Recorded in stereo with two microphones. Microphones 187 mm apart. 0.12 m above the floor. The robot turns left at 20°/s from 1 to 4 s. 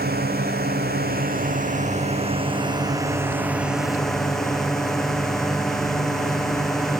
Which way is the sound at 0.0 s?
120° right.